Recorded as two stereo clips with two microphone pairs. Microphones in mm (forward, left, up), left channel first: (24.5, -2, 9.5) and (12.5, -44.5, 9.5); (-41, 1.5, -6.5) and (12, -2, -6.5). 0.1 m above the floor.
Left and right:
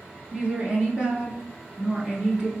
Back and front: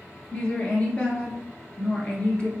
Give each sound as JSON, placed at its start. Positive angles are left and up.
{"t": 0.3, "sound": "a woman speaking", "azimuth_deg": -140, "distance_m": 1.2}